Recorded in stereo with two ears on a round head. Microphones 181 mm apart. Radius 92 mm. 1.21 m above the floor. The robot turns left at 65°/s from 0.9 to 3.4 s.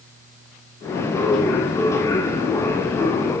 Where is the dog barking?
I don't hear a dog barking.